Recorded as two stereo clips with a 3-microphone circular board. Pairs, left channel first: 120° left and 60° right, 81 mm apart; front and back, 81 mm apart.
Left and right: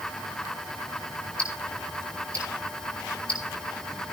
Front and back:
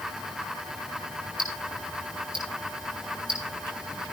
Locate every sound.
1.4 s ticking: 165° right, 9 m